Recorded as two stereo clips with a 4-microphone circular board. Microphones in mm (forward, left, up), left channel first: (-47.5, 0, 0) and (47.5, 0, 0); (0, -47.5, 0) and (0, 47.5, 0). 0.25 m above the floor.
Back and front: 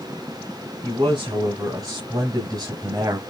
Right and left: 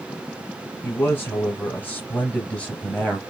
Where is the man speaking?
30° right, 2.5 m; by 3.2 s 5° right, 1.7 m.